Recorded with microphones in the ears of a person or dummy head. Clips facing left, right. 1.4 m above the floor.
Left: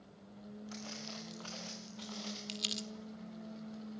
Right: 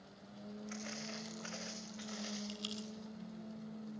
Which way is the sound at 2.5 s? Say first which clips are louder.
Left 1 dB; 35° left (ahead or behind).